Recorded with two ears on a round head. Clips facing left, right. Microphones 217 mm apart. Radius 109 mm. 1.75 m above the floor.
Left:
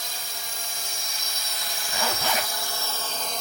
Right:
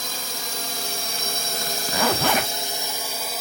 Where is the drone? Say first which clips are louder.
Right 6 dB; 65° right (ahead or behind); by 3.4 s 5° right (ahead or behind).